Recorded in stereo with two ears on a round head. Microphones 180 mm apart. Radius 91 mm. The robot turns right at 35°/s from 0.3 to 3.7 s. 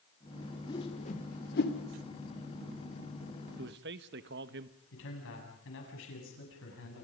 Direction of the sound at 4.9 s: 70° left (ahead or behind).